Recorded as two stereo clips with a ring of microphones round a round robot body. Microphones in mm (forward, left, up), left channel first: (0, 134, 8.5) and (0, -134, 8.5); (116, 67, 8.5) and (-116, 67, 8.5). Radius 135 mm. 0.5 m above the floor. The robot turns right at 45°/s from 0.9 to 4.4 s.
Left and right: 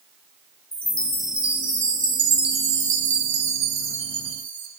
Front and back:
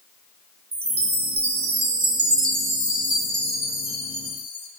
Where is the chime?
165° left, 0.7 m; by 4.7 s 35° right, 0.7 m.